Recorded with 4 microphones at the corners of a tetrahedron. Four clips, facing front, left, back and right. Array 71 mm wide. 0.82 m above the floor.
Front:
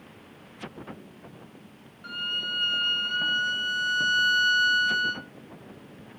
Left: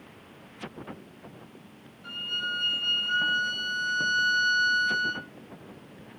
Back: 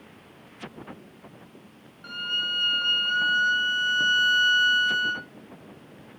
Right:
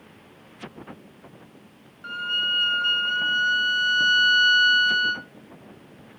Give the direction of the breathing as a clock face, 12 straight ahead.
No breathing in this recording.